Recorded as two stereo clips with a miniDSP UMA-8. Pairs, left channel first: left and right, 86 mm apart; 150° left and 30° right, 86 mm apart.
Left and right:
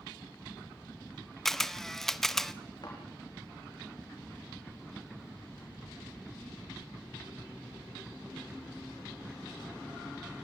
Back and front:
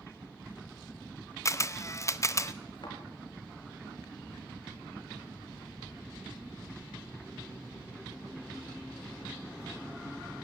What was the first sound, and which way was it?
A camera shutter, 175° left.